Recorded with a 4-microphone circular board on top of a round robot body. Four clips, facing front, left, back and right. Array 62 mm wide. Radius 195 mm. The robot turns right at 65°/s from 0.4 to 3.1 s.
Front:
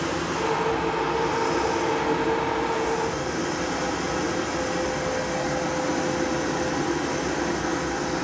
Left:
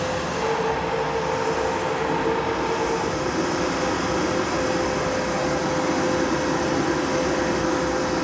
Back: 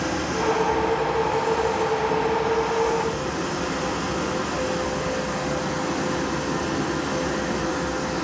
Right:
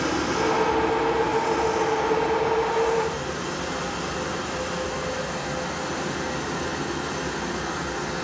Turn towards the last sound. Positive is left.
turn(degrees=100)